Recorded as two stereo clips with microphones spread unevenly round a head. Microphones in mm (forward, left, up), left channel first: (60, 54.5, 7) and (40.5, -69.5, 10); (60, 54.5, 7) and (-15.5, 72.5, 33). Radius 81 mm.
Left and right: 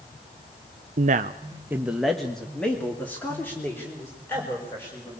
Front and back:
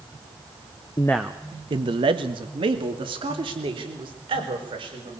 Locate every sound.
1.0 s a man speaking: 85° right, 0.6 m; by 5.2 s 160° left, 6 m